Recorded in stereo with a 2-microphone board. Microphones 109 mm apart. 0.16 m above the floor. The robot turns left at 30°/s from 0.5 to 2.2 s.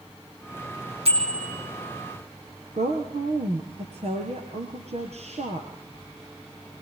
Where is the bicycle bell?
60° right (ahead or behind), 5.5 m; by 1.5 s 75° right (ahead or behind), 5.5 m.